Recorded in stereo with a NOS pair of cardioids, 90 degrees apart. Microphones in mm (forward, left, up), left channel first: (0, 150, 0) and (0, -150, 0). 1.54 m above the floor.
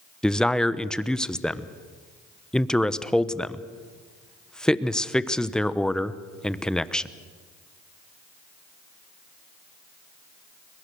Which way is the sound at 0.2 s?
5° left.